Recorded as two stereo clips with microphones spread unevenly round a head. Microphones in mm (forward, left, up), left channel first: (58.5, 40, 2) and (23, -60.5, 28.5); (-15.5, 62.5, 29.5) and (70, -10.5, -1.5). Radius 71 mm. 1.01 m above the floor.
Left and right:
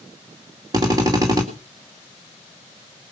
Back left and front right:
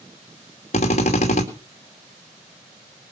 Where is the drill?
175° right, 2.5 m.